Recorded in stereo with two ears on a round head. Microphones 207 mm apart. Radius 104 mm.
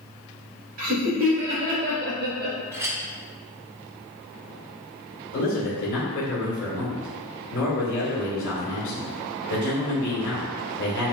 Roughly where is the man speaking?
Left.